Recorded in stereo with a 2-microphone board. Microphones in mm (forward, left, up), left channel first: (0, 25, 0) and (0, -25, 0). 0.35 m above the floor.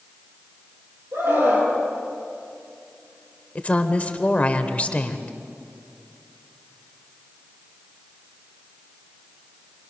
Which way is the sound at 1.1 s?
70° right (ahead or behind).